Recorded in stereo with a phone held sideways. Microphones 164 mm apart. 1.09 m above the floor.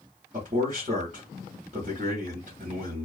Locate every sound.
0.3 s a man speaking: 50° right (ahead or behind), 1.1 m